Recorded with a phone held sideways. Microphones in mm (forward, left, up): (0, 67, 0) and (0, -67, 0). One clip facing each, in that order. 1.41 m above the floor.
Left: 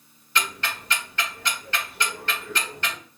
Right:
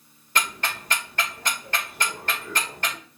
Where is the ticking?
50° right (ahead or behind), 2 m.